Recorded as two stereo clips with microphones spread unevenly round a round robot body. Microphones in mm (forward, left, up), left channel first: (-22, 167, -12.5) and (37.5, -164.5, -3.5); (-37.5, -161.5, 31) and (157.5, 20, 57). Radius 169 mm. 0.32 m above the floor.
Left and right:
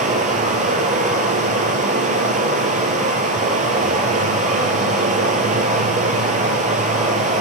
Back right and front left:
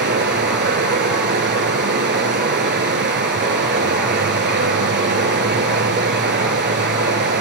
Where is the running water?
10° right, 0.9 m.